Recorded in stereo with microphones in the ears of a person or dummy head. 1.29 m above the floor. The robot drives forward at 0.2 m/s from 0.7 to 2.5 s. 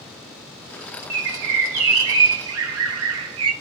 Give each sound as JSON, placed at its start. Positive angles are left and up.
{"t": 1.1, "sound": "a bird", "side_deg": -60, "distance_m": 0.7}